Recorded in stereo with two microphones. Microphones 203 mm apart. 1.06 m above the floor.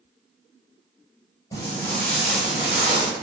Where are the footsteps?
15° left (ahead or behind), 1.2 m; by 3.1 s 20° right (ahead or behind), 1.4 m.